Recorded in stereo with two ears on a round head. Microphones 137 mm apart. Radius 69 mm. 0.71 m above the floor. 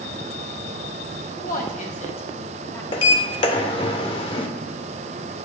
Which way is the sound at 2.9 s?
35° left (ahead or behind).